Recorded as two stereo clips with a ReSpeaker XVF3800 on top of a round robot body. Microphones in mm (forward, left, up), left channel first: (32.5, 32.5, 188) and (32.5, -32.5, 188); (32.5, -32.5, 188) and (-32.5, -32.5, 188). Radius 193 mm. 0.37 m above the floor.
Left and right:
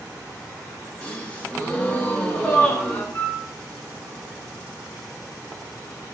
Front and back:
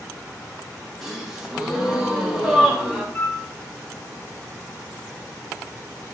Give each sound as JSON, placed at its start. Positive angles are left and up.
{"t": 1.0, "sound": "a gasp", "azimuth_deg": 110, "distance_m": 0.9}
{"t": 3.1, "sound": "a flute", "azimuth_deg": 40, "distance_m": 1.5}